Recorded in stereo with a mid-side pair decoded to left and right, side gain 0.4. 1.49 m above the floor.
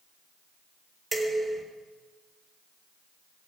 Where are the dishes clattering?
25° right, 4 m.